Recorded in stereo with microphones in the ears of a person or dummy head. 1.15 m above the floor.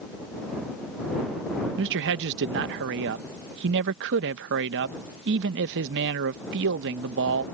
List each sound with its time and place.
1.8 s a man speaking: 60° right (ahead or behind)